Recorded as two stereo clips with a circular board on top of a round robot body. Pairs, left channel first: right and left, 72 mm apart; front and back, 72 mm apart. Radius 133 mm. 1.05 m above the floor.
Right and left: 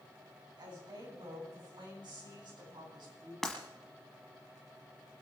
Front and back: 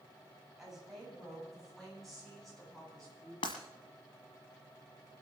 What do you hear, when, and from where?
0.6 s a woman speaking: 95° left, 9 m; by 3.3 s 85° left, 11 m
3.4 s breaking glass: 5° right, 1.2 m